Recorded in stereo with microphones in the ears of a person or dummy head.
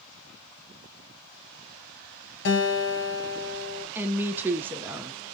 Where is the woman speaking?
10° right (ahead or behind), 0.5 m.